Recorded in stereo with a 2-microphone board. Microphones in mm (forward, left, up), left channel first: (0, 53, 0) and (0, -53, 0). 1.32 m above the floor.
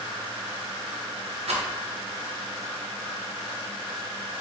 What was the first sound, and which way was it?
A rattle, 80° right.